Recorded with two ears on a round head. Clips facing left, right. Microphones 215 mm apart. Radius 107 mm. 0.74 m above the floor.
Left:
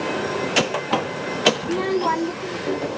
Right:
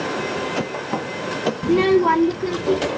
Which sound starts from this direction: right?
A child speaking, at 1.6 s.